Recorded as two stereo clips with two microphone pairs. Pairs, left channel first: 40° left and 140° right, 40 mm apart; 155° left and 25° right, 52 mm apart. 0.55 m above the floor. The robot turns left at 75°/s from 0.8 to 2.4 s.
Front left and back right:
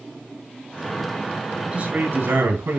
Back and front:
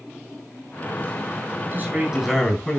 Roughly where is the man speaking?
Right.